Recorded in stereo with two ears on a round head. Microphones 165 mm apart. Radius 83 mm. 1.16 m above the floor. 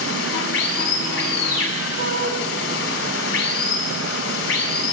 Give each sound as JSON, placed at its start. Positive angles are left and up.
{"t": 0.0, "sound": "running water", "side_deg": 75, "distance_m": 5.0}
{"t": 2.0, "sound": "a shout", "side_deg": -50, "distance_m": 8.0}